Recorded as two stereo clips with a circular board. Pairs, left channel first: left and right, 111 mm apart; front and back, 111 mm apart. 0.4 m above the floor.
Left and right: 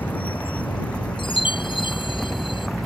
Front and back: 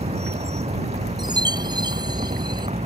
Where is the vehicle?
165° left; by 2.9 s straight behind.